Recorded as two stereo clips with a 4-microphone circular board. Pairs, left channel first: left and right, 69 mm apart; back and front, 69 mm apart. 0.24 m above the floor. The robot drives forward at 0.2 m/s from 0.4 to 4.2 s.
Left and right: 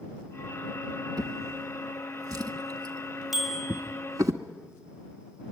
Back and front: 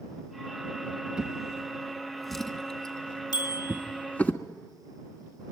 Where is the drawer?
80° right, 1.1 m; by 4.3 s 115° right, 1.2 m.